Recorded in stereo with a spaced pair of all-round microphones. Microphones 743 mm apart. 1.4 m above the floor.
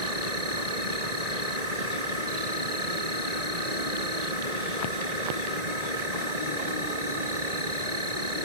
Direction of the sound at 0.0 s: 60° right (ahead or behind).